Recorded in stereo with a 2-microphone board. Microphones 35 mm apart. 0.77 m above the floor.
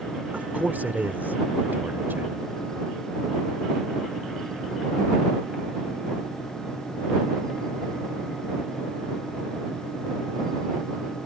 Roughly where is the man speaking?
Right.